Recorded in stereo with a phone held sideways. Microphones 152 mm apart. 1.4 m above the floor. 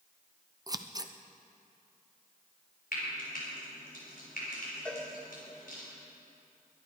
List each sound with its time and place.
0.7 s scissors: 25° right (ahead or behind), 0.6 m
2.9 s frying: 75° left (ahead or behind), 5 m
4.8 s a cowbell: 10° left (ahead or behind), 2.5 m